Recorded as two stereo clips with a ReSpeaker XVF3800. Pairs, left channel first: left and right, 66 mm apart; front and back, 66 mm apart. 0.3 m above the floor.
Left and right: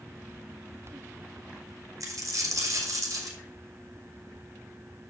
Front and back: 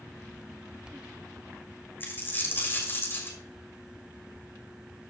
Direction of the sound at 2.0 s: 60° right.